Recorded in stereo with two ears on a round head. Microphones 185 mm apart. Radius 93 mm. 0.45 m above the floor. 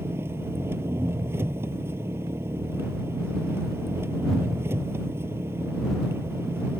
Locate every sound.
0.0 s an engine running: 10° right (ahead or behind)